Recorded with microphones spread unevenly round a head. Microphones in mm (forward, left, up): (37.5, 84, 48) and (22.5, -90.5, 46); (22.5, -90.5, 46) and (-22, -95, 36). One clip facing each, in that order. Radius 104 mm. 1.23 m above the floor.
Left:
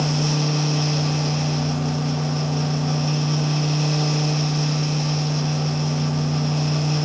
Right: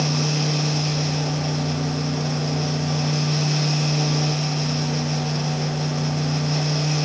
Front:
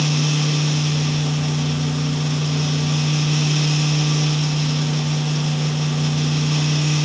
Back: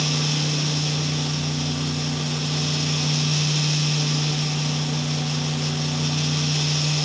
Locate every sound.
Only background noise.